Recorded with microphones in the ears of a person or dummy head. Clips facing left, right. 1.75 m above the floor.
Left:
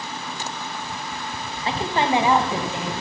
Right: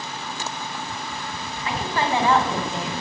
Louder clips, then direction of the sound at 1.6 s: Left 2 dB; 30° left (ahead or behind).